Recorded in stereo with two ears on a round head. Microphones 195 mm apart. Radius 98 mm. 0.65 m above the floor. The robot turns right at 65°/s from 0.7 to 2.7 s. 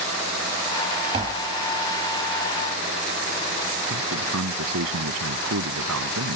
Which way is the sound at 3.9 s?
80° right.